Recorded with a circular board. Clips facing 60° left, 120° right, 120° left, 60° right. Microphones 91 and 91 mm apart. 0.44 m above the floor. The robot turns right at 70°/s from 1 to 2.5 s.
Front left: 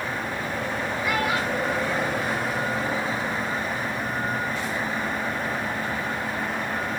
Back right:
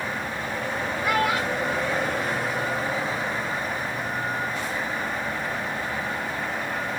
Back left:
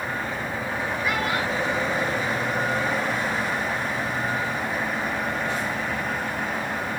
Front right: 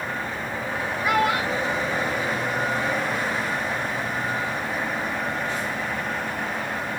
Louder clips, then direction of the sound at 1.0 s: Back right 2 dB, front right 6 dB; 90° right.